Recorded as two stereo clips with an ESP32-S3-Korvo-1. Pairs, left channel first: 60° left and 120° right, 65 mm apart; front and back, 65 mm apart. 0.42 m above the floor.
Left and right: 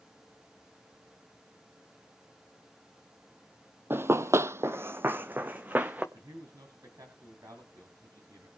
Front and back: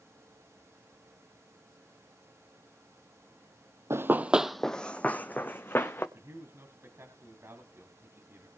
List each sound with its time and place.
3.9 s running footsteps: 160° right, 0.6 m; by 6.0 s 55° right, 1.6 m
6.1 s a man speaking: 135° right, 2.5 m